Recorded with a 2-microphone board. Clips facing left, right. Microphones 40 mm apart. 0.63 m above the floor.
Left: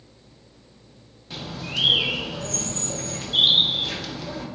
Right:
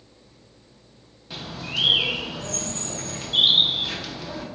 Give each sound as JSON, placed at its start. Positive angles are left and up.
{"t": 1.3, "sound": "a bird", "side_deg": -5, "distance_m": 0.6}